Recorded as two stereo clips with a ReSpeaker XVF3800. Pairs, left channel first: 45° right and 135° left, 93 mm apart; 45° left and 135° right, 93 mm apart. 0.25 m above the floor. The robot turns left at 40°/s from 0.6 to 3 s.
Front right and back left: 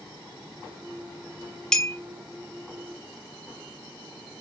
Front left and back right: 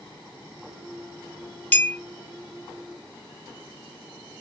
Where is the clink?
25° left, 0.5 m; by 2.0 s 15° left, 0.5 m.